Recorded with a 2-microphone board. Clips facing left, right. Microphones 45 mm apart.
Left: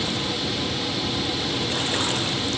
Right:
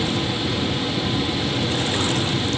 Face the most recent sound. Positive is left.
No sound to turn to.